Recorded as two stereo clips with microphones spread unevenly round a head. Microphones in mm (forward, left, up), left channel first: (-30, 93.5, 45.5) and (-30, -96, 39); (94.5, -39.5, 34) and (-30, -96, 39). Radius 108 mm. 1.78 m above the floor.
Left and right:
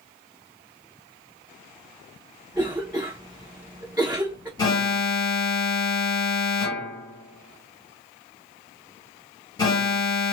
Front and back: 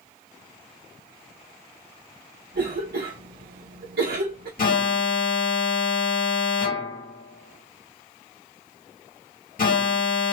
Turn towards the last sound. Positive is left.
turn(degrees=20)